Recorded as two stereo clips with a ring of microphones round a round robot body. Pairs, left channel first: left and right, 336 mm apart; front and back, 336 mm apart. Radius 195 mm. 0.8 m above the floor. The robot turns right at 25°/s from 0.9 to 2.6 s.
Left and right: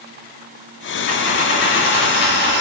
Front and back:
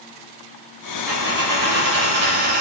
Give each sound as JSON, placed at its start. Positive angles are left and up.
{"t": 1.1, "sound": "a dropped coin", "azimuth_deg": 95, "distance_m": 3.5}